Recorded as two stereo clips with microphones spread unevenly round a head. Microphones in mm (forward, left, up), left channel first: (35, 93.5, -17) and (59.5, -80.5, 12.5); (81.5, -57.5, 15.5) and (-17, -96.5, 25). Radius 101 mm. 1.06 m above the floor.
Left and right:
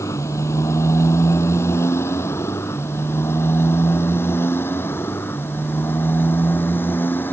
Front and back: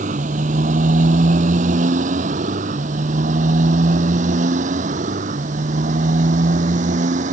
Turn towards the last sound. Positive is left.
turn(degrees=180)